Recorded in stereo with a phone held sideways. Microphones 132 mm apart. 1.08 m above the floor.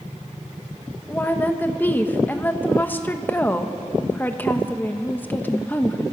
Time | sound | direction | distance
1.1 | a woman speaking | 15° left (ahead or behind) | 1.3 m